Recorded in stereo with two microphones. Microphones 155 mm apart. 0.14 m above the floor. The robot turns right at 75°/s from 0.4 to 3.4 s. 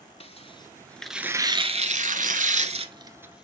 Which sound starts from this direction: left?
Tearing paper, at 0.2 s.